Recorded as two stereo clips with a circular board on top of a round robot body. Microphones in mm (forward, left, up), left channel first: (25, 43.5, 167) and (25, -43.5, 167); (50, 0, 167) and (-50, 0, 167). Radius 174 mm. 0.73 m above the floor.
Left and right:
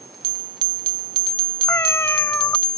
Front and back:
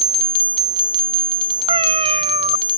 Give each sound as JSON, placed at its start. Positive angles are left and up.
{"t": 1.7, "sound": "a cat meowing", "azimuth_deg": 155}